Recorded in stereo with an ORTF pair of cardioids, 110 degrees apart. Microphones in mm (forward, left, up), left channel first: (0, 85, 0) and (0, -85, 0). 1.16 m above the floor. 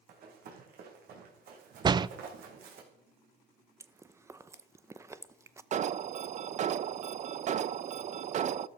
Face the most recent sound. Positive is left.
turn(degrees=-45)